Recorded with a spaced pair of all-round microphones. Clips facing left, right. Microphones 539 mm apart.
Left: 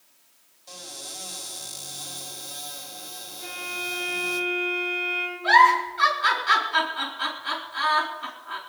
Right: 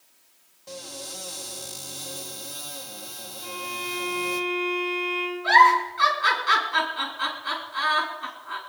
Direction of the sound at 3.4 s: 85° left.